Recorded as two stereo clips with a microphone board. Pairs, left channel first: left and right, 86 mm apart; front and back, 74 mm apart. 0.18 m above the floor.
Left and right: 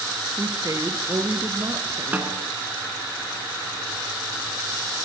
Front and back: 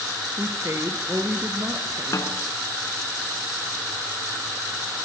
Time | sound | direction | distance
0.4 | a woman speaking | 135° right | 3 m
2.1 | a snare drum | 25° right | 2.5 m